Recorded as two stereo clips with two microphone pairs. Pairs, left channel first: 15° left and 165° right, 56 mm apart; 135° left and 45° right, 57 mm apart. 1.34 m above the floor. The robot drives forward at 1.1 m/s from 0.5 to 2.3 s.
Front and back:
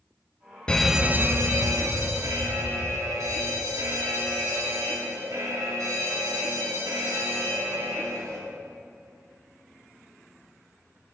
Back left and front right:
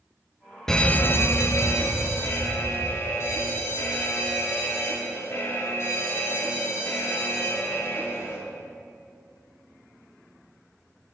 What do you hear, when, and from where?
0.7 s an alarm: 60° left, 0.6 m; by 8.4 s 170° left, 1.7 m